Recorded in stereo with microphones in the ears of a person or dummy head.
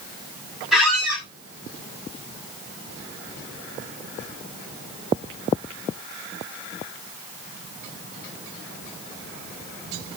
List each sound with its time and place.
0.7 s a squeak: 5° right (ahead or behind), 1.2 m